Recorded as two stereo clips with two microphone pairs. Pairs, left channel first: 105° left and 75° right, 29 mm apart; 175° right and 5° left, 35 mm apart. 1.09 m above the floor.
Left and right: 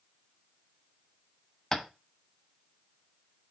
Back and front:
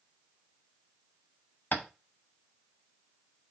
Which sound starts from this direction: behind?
Tapping, at 1.7 s.